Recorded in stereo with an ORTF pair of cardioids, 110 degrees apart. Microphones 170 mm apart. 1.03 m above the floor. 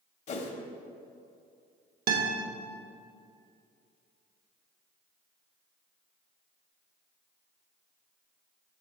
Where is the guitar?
60° right, 1.2 m.